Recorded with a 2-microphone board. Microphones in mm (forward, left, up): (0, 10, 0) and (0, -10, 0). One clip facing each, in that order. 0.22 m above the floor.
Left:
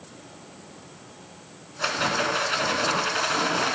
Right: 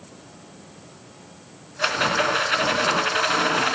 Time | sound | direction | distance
1.8 | a rattle | 25° right (ahead or behind) | 0.5 m